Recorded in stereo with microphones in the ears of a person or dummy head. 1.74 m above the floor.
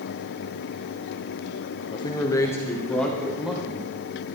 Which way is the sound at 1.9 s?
20° left (ahead or behind).